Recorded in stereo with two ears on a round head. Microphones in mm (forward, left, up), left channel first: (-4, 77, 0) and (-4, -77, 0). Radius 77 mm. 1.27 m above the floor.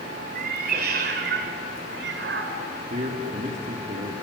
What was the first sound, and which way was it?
A cat meowing, 55° right (ahead or behind).